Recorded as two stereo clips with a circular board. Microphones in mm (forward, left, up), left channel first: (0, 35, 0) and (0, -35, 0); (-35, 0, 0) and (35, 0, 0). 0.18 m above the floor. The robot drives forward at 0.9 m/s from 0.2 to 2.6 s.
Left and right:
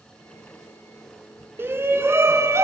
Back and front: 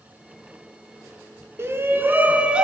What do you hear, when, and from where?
1.6 s a shout: 40° right, 2 m; by 2.6 s 70° right, 1.7 m